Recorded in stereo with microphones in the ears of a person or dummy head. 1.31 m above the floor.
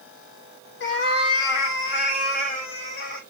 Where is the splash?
No splash in this recording.